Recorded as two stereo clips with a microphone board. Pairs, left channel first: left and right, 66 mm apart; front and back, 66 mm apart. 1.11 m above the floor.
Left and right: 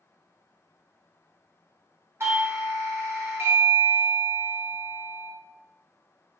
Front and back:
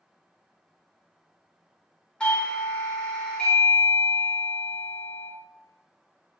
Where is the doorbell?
70° right, 1.0 m.